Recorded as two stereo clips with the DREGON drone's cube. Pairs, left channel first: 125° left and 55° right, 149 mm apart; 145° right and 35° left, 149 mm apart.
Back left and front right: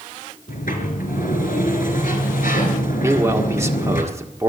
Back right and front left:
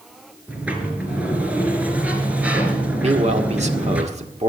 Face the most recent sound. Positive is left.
turn(degrees=10)